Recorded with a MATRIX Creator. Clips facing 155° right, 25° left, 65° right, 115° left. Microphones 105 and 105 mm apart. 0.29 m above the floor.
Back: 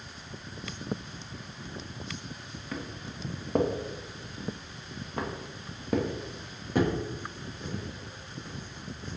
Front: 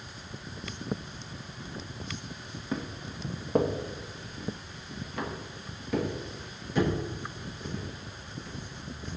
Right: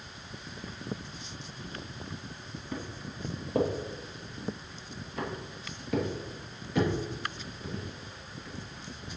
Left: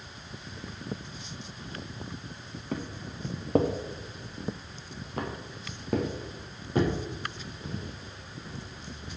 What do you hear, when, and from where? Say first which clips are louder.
2.7 s footsteps: front 3 dB, left 4 dB; 90° left, 1.3 m; by 9.2 s 175° left, 4 m